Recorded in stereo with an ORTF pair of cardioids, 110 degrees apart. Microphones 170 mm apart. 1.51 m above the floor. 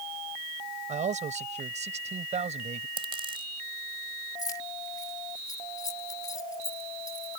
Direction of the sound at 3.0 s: 30° right.